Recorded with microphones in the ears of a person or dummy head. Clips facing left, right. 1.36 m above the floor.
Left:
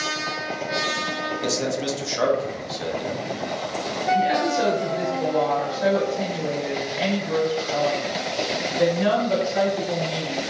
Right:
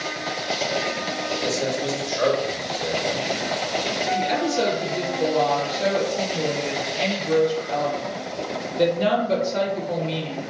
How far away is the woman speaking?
About 1.3 m.